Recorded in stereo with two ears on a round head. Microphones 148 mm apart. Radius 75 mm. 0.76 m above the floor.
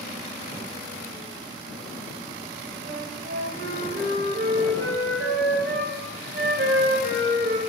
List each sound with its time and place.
2.9 s a flute: 70° right (ahead or behind), 1.6 m